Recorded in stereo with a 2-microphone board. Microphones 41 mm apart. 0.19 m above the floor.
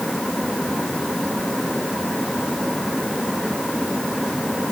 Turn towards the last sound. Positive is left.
No sound to turn to.